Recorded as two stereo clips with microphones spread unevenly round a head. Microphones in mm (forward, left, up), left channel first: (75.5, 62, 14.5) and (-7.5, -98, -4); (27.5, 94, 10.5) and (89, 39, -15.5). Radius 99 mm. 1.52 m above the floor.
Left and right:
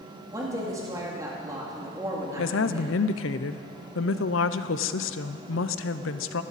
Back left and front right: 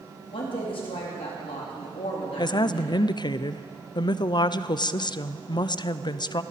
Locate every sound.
0.3 s a woman speaking: 165° left, 2.5 m
2.4 s a woman speaking: 95° left, 0.5 m